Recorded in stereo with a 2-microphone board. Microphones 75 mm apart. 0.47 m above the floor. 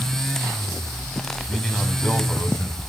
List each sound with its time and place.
1.5 s a man speaking: 15° left (ahead or behind), 3 m